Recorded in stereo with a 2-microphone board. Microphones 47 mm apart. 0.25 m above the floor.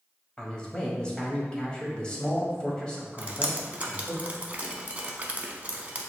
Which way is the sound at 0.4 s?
20° left (ahead or behind).